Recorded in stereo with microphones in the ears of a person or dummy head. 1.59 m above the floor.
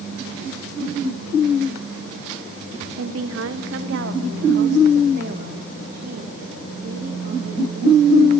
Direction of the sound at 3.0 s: 85° right.